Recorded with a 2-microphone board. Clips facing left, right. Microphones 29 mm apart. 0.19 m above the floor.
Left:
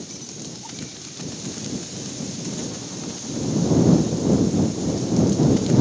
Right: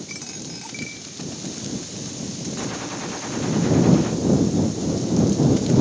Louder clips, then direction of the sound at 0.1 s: Right 2 dB; 75° right (ahead or behind).